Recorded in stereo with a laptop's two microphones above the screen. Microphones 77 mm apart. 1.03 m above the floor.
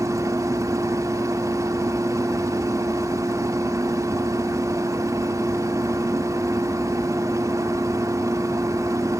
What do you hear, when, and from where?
0.0 s a machine running: 45° right (ahead or behind), 2 m